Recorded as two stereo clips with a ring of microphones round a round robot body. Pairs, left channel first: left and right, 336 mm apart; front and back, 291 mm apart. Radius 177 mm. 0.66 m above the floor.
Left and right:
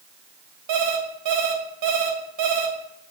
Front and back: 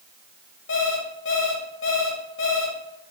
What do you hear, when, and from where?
0.7 s an alarm clock: 60° right, 1.8 m